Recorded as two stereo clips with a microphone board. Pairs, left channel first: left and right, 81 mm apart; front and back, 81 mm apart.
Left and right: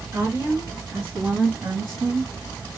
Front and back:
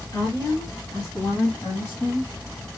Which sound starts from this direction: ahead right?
A woman speaking, at 0.1 s.